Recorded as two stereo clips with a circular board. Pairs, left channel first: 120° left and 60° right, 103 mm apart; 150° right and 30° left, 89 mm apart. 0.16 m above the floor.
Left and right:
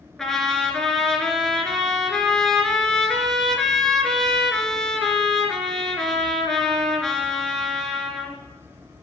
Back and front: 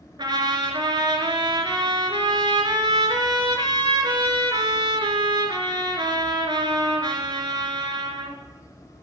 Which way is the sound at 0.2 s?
35° left.